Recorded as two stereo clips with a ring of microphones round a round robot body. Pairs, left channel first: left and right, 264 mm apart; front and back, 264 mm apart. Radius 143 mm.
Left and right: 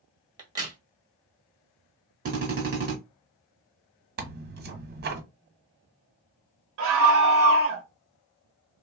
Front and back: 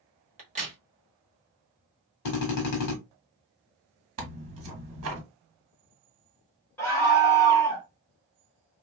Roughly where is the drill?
Ahead right.